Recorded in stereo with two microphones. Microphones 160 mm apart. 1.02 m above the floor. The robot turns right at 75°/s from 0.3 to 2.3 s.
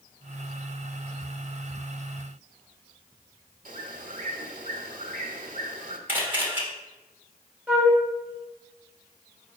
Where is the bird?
55° right (ahead or behind), 1.0 m.